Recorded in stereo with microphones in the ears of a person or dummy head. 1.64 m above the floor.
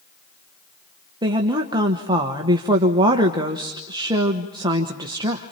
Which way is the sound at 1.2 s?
25° right (ahead or behind).